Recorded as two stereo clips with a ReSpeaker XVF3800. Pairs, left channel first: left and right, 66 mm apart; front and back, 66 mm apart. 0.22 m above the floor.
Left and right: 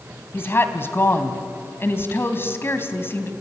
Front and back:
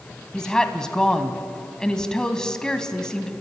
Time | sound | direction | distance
0.3 | a woman speaking | 70° left | 1.7 m